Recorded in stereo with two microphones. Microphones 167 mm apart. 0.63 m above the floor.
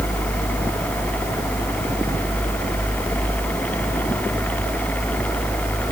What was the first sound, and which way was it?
Only background noise.